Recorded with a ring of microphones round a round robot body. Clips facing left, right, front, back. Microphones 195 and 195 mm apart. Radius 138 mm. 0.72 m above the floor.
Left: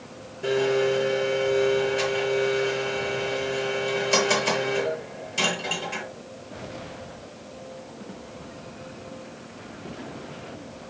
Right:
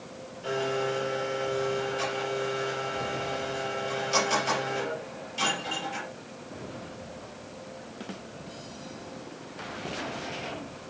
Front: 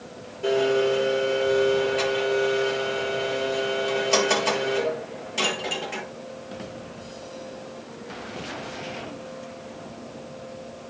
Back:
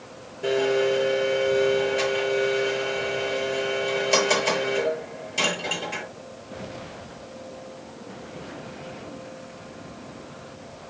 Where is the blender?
90° left, 5.5 m.